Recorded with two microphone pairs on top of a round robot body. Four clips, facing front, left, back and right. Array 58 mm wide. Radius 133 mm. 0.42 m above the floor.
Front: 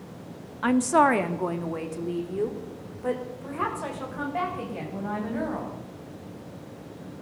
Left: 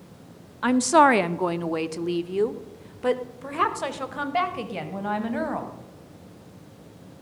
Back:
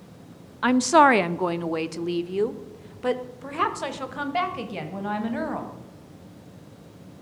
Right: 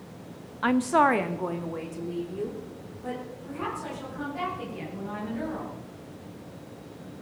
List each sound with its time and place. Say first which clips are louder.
0.6 s a woman speaking: left 4 dB, back 4 dB; 165° left, 0.7 m; by 5.7 s 120° left, 3 m